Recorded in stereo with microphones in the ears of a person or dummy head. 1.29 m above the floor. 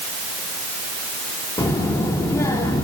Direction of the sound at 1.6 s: 20° left (ahead or behind).